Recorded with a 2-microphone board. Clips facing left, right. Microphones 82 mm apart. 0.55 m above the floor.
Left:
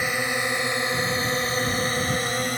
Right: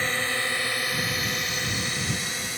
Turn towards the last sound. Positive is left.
turn(degrees=50)  # may be behind; listen again after turning